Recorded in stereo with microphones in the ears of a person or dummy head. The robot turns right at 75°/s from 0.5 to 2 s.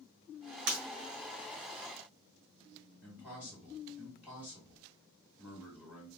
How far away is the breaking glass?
About 1.4 m.